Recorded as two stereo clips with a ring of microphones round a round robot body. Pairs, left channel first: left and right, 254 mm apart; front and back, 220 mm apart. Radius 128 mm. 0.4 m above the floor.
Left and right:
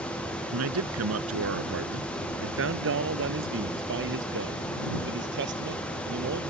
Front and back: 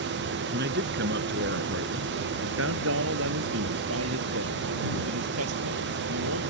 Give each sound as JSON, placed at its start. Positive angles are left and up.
{"t": 0.5, "sound": "a man speaking", "azimuth_deg": -125}